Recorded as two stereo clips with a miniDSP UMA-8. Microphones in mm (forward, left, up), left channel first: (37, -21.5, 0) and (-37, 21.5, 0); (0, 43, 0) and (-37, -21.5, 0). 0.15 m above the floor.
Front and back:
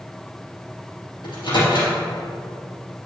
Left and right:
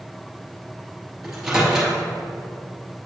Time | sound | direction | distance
1.2 | a microwave | 35° right | 2 m